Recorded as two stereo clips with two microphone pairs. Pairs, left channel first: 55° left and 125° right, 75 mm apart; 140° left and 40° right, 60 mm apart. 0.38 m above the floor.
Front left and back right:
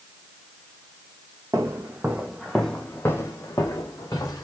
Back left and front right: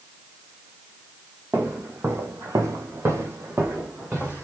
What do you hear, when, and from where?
1.5 s footsteps: 85° right, 0.7 m; by 4.4 s 20° left, 1.4 m